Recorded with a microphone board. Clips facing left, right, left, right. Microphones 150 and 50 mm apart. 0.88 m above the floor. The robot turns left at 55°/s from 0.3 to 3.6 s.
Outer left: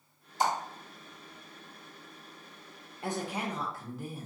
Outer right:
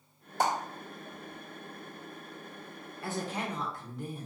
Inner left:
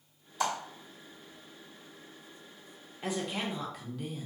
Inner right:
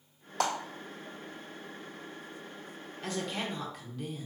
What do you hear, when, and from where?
0.4 s a clap: 65° right (ahead or behind), 1.8 m; by 0.5 s 70° right (ahead or behind), 1.8 m
3.0 s a woman speaking: 35° left, 1.0 m; by 4.2 s 5° left, 1.0 m